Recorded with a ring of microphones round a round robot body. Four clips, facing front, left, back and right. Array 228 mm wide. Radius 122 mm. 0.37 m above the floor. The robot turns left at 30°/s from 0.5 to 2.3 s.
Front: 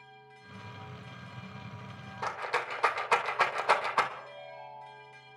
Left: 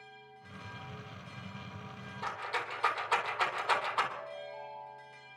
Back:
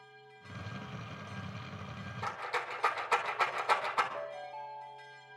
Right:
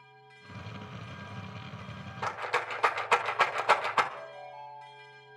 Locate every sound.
2.2 s a rattle: 50° right, 1.7 m; by 4.0 s 55° right, 1.7 m
4.1 s a ringtone: 175° left, 8.5 m